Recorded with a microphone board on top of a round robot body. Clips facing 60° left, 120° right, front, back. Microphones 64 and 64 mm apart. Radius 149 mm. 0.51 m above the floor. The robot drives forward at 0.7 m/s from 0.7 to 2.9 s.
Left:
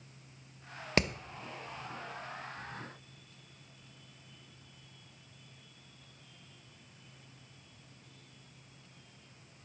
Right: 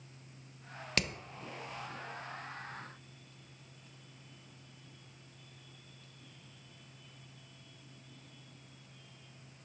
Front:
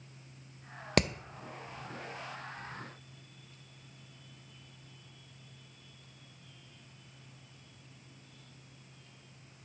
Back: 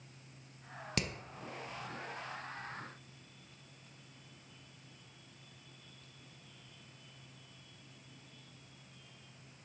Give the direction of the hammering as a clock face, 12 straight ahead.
12 o'clock.